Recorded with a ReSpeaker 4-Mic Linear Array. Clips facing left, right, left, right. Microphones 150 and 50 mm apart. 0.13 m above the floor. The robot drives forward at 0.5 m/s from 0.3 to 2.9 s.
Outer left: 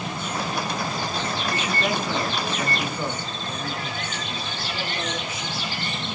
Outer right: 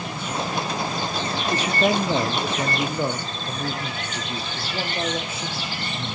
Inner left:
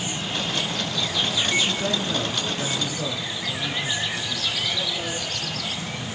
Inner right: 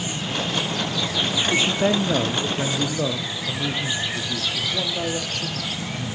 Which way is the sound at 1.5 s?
40° right (ahead or behind).